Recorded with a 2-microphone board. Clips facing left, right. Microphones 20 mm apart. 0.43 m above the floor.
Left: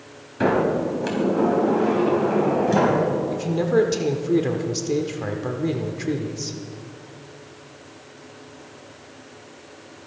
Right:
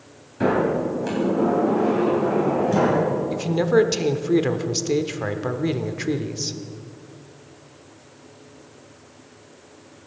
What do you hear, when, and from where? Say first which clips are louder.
0.4 s a sliding door: even; 30° left (ahead or behind), 3.5 m
3.3 s a man speaking: right 5 dB; 20° right (ahead or behind), 0.8 m